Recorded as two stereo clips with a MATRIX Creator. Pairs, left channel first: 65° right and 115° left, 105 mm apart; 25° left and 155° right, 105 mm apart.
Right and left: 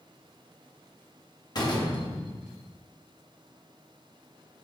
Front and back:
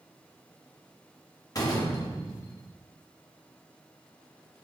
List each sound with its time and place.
1.6 s a door slam: 25° right, 1.1 m